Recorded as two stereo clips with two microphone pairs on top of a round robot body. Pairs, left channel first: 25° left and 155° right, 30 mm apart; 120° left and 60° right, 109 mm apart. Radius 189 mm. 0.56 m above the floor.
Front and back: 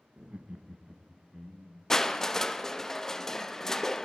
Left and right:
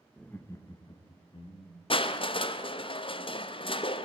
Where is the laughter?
160° right, 0.7 m; by 1.8 s 135° left, 1.2 m.